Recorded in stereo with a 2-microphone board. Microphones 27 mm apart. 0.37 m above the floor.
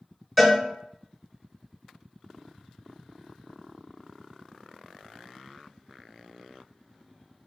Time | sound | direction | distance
0.4 | a cowbell | centre (ahead or behind) | 1.8 m